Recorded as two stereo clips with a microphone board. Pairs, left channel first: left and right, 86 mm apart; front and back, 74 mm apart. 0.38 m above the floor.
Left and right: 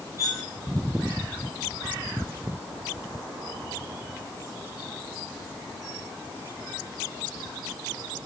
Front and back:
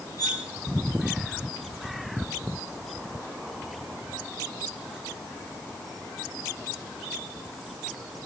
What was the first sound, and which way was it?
Cutlery clinking, 35° left.